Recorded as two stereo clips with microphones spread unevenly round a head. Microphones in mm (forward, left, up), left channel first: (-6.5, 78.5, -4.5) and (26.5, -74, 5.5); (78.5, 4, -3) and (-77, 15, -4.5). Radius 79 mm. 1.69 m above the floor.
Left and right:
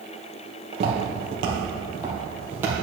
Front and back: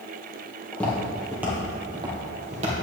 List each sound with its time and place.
0.7 s footsteps: 75° right, 2 m; by 2.7 s 150° right, 2.5 m